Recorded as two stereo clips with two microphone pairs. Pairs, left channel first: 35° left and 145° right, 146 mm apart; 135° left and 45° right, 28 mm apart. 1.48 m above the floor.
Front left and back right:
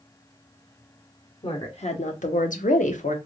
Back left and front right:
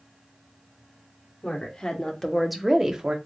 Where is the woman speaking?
80° left, 1.1 m; by 3.2 s 15° left, 0.8 m.